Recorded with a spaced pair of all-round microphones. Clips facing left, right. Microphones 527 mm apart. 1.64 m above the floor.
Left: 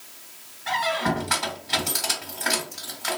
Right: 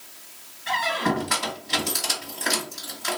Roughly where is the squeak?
Centre.